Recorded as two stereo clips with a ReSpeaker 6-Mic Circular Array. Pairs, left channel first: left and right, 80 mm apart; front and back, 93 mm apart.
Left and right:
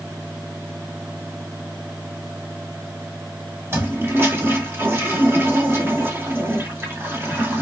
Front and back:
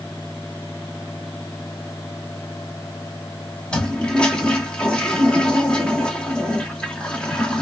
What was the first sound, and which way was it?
A toilet flushing, 70° right.